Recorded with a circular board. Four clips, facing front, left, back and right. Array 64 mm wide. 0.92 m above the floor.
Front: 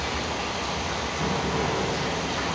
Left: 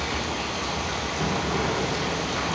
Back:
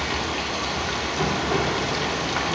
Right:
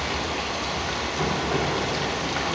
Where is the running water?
160° right, 2 m.